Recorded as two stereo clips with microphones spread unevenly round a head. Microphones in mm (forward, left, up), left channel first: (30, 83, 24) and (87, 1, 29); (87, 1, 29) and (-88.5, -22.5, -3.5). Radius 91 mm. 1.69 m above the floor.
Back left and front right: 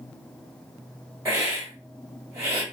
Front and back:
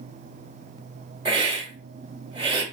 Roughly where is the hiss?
Right.